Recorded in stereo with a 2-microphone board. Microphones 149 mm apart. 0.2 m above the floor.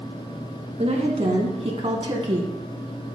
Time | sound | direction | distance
0.8 | a woman speaking | 45° right (ahead or behind) | 1.8 m